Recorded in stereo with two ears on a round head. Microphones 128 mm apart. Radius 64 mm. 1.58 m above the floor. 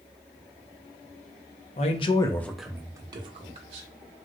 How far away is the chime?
I don't hear a chime.